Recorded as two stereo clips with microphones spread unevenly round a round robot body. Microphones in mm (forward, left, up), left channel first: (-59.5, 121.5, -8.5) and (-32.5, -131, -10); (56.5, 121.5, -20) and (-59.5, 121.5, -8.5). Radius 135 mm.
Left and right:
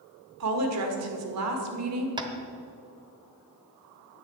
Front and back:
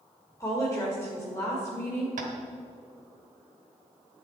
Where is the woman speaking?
70° right, 1.8 m.